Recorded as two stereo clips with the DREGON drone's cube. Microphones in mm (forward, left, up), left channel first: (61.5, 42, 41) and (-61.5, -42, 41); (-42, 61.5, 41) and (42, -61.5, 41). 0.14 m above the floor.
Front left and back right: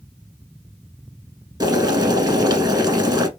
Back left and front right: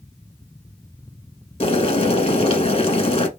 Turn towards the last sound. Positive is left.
turn(degrees=160)